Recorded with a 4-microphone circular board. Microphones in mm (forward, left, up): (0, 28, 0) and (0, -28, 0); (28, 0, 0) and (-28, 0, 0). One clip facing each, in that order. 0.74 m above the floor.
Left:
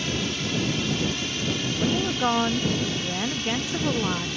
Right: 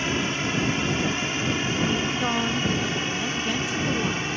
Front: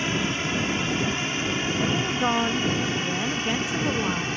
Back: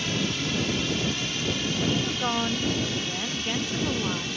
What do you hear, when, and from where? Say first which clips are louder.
0.0 s a drone: right 3 dB, front 3 dB; 50° right; by 4.4 s 45° right
1.8 s a woman speaking: left 4 dB, front 3 dB; 55° left